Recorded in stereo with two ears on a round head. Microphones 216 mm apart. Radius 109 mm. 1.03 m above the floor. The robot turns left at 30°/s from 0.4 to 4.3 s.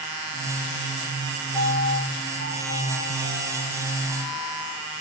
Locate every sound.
1.5 s a piano: 165° left, 3 m; by 4.8 s 80° left, 3 m